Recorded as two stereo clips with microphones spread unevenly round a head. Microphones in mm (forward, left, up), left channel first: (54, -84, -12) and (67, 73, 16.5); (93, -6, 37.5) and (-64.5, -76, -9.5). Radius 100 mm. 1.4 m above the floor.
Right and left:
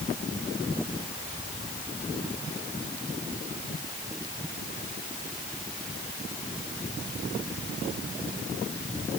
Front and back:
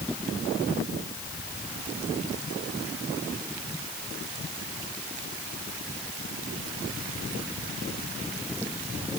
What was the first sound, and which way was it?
Only background noise.